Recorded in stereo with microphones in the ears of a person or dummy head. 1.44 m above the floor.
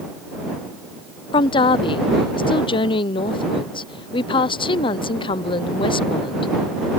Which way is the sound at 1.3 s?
25° left (ahead or behind).